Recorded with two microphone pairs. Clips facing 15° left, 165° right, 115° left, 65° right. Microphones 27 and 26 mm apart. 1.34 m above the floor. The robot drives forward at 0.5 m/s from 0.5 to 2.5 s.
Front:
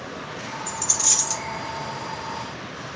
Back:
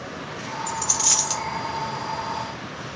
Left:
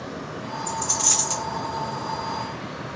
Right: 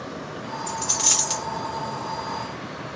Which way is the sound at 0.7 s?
90° right.